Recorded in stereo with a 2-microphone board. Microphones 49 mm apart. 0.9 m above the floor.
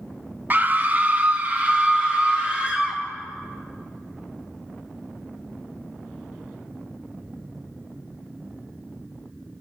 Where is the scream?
35° right (ahead or behind), 0.5 m; by 3.0 s 25° right (ahead or behind), 2 m.